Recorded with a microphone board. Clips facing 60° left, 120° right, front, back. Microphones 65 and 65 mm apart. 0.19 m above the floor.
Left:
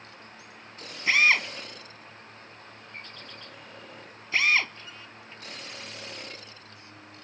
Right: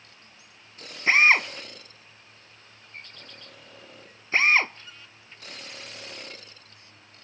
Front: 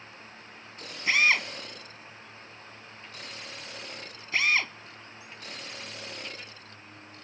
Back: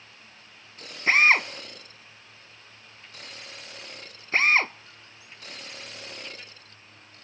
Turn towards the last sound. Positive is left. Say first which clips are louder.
# right 3 dB, back 5 dB
turn(degrees=-160)